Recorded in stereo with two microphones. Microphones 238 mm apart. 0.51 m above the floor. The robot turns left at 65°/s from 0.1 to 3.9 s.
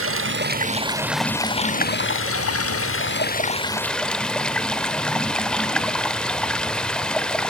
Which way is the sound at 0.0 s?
110° right.